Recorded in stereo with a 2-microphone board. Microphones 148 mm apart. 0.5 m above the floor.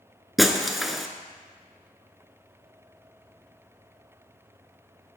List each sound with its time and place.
0.4 s breaking glass: centre (ahead or behind), 0.6 m